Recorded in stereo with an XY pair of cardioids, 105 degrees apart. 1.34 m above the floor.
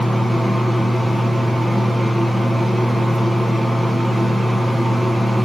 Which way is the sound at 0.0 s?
5° right.